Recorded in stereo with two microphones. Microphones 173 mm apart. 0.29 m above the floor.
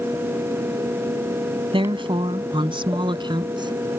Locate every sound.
1.7 s a woman speaking: 30° right (ahead or behind); by 4.0 s 25° right (ahead or behind)